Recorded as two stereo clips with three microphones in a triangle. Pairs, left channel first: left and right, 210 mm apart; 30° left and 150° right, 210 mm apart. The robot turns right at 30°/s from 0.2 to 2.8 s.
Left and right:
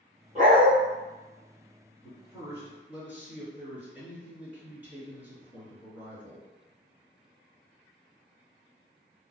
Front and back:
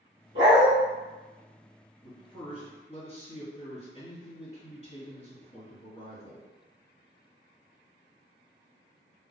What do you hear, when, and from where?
0.3 s a dog barking: 140° right, 1.5 m; by 0.7 s 130° right, 1.5 m
2.0 s a man speaking: 35° right, 1.6 m; by 6.5 s 15° right, 1.6 m